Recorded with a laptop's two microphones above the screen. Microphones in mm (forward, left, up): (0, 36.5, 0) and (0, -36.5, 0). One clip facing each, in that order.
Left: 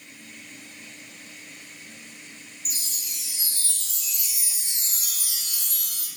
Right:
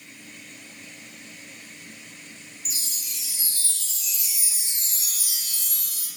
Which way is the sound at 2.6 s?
45° left (ahead or behind).